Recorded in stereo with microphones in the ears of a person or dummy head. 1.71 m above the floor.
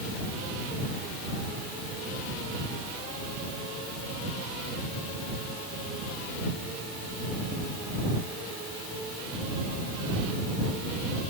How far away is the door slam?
No door slam in this recording.